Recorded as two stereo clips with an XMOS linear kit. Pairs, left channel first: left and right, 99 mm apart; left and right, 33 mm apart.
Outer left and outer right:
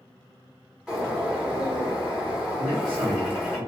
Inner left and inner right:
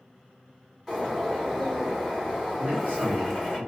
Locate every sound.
0.9 s a bird: 5° right (ahead or behind), 1.1 m
2.6 s a man speaking: 60° right (ahead or behind), 0.7 m